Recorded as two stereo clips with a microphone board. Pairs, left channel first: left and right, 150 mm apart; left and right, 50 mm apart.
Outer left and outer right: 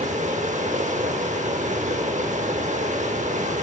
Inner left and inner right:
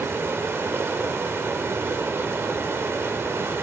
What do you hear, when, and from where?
0.0 s running water: 55° right (ahead or behind), 0.7 m